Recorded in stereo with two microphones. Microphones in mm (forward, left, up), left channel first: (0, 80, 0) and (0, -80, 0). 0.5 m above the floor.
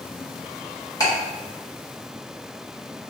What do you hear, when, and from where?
1.0 s ticking: 25° left (ahead or behind), 1.3 m